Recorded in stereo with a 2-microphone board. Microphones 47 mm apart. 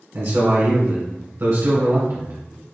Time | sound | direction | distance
0.1 | a man speaking | 60° right (ahead or behind) | 1.9 m